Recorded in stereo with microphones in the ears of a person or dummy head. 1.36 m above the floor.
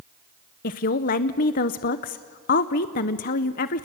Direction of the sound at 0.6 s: 40° left (ahead or behind).